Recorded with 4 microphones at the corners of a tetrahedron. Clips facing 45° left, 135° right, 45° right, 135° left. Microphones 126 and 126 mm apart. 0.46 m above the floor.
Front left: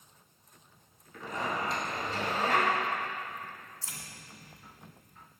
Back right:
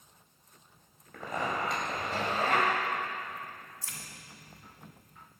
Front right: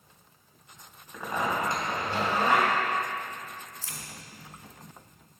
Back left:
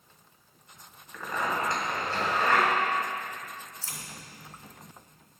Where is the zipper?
115° right, 2.5 m.